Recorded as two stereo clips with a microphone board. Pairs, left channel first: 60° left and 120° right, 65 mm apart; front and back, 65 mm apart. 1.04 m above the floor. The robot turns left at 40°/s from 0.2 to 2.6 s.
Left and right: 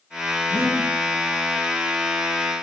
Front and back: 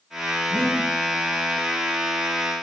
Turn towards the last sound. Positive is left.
turn(degrees=-145)